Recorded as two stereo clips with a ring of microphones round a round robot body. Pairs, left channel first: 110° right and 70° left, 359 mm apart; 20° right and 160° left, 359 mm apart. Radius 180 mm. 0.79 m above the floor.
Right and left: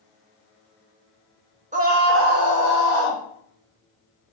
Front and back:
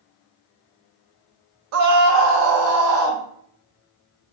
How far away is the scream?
About 0.6 m.